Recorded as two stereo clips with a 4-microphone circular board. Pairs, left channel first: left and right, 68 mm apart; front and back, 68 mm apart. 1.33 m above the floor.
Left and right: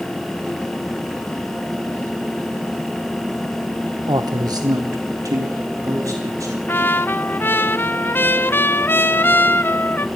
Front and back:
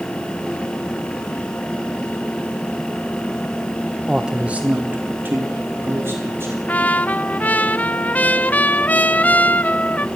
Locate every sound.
4.1 s a man speaking: 95° right, 0.9 m; by 6.6 s 125° right, 4 m
6.7 s a trumpet: 55° left, 0.6 m